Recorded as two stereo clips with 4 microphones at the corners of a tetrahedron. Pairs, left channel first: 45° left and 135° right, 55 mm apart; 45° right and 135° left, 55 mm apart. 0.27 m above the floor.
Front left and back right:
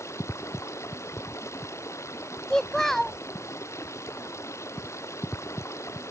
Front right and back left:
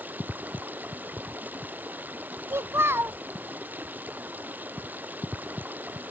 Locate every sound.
0.0 s running water: 80° left
2.5 s a child speaking: 125° left